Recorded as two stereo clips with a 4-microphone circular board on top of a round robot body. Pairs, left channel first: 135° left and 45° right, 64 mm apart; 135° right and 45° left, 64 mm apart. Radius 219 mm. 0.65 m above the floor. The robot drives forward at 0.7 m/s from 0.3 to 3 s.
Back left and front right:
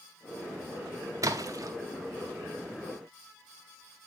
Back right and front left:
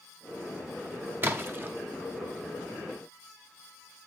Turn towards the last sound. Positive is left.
turn(degrees=-40)